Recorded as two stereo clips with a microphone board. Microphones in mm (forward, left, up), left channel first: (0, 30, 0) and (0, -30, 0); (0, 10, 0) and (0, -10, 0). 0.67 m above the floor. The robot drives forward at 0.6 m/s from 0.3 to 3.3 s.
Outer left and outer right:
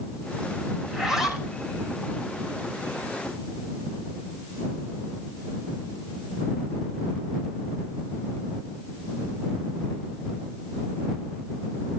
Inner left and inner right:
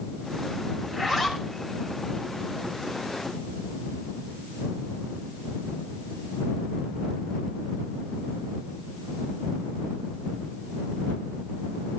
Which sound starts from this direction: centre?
A zipper, at 0.8 s.